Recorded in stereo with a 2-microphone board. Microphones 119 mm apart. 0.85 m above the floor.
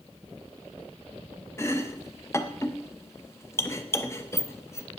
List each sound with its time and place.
1.6 s chopping: 20° left (ahead or behind), 0.6 m